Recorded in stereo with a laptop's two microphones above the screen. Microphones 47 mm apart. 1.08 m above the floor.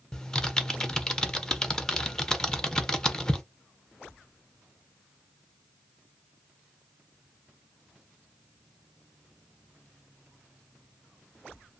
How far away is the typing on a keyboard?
About 0.5 m.